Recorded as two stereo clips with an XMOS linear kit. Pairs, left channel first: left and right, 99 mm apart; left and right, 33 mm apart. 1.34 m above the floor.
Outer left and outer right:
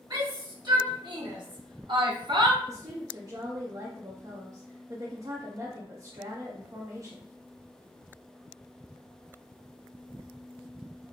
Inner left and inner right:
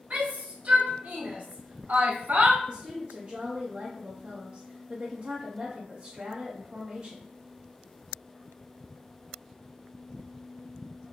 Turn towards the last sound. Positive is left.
turn(degrees=-40)  # may be behind; listen again after turning